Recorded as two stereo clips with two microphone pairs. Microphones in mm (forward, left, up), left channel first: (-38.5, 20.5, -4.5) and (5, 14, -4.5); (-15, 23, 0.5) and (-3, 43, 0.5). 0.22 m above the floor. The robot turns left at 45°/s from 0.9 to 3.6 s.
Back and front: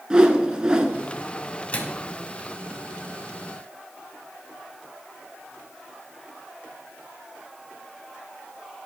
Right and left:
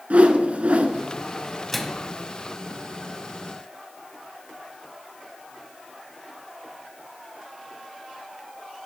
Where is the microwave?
160° left, 1.4 m; by 2.1 s 140° left, 1.4 m.